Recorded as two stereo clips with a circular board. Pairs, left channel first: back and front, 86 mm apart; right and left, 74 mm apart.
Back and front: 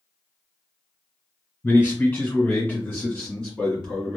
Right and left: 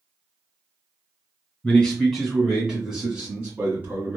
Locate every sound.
1.6 s a man speaking: 150° right, 1.6 m; by 4.2 s 105° left, 1.7 m